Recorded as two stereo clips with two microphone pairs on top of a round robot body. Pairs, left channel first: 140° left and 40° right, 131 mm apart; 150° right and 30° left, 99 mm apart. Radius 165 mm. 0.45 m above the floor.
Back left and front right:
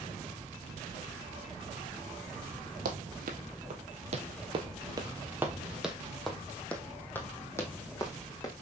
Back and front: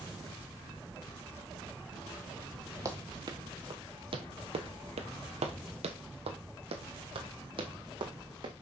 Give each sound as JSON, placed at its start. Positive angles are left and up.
{"t": 2.9, "sound": "running footsteps", "azimuth_deg": -30, "distance_m": 1.4}